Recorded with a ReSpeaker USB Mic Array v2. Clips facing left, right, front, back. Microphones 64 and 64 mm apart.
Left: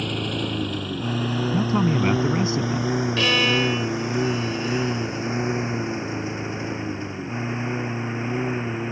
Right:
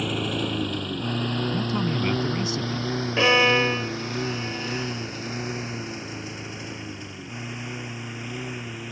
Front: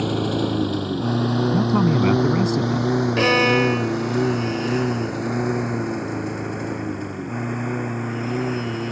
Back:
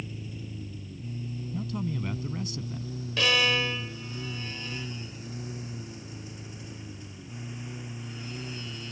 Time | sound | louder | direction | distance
0.0 | a lawn mower | even, front 19 dB | 5° right | ?
1.5 | a man speaking | left 5 dB, front 12 dB | 25° left | ?
3.2 | a violin | right 5 dB, front 7 dB | 35° right | ?